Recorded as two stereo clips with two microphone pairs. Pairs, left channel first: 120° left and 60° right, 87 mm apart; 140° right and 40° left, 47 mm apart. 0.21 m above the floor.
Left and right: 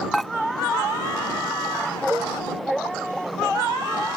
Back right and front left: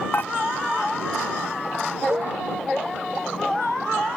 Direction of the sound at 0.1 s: 155° right.